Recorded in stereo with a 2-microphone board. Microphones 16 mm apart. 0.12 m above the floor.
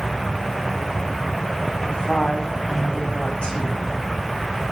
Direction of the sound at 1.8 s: 75° left (ahead or behind).